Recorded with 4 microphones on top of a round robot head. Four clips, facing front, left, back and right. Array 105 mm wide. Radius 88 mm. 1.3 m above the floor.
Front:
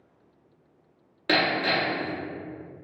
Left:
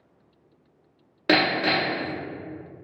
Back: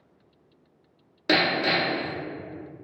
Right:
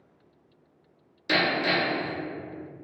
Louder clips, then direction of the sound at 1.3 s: Left 3 dB, back 1 dB; 105° left.